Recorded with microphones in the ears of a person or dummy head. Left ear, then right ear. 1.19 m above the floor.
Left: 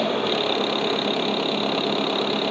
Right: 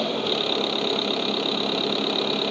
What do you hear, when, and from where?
0.0 s an engine running: 5° left (ahead or behind)